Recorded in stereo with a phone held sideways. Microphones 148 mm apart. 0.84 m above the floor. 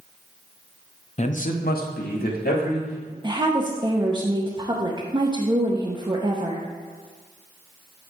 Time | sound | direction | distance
1.2 | a man speaking | 45° left (ahead or behind) | 0.7 m
3.2 | a woman speaking | 30° right (ahead or behind) | 0.7 m